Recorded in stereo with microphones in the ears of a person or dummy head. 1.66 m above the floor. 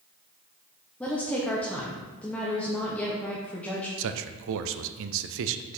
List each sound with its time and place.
1.0 s a woman speaking: 5° left (ahead or behind), 0.7 m
4.0 s a man speaking: 70° right (ahead or behind), 0.6 m